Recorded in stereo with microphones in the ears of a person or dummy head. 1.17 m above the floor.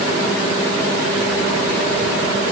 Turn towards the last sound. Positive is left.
No sound to turn to.